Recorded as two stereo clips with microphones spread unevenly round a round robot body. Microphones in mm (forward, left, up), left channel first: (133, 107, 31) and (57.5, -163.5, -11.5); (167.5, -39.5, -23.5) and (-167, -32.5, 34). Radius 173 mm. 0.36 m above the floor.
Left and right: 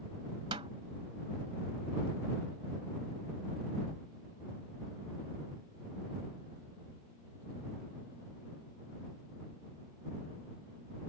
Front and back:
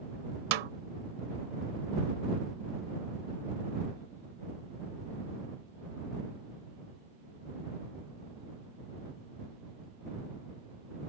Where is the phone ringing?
No phone ringing in this recording.